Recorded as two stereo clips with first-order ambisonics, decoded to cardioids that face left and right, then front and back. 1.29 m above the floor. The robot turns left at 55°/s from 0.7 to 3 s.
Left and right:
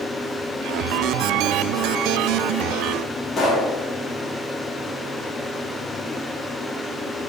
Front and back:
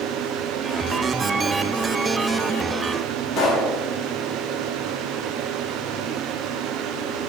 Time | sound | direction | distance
3.4 | a pop | 30° left | 0.7 m